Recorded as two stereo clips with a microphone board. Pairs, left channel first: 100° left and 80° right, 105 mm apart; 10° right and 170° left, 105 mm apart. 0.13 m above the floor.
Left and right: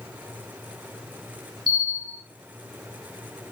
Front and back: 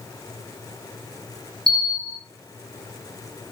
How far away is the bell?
About 1.9 m.